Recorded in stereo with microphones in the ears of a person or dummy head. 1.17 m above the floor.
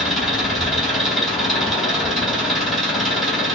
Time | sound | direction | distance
0.0 | an engine running | 5° left (ahead or behind) | 1.8 m